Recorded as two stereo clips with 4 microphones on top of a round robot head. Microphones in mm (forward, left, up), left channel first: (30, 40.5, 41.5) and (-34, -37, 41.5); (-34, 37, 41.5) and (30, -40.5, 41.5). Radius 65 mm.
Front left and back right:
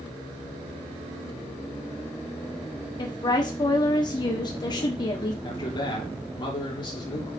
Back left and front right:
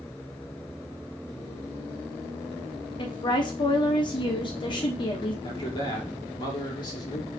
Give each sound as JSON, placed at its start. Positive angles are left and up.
{"t": 3.0, "sound": "a woman speaking", "azimuth_deg": 95, "distance_m": 1.2}
{"t": 5.4, "sound": "a man speaking", "azimuth_deg": 90, "distance_m": 3.0}